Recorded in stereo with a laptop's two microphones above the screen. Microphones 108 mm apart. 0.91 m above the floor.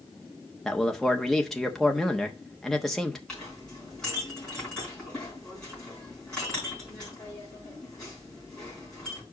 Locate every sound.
0.7 s a man speaking: centre (ahead or behind), 1.0 m
3.3 s a clink: 5° left (ahead or behind), 4.5 m